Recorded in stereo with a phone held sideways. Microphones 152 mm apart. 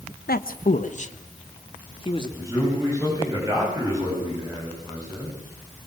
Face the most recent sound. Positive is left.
turn(degrees=-20)  # may be behind; listen again after turning